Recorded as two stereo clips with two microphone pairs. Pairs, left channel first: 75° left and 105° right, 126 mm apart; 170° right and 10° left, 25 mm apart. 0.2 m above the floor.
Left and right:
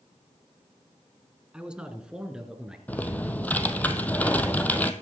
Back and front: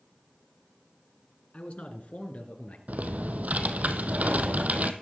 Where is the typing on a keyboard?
Straight ahead, 1.0 m.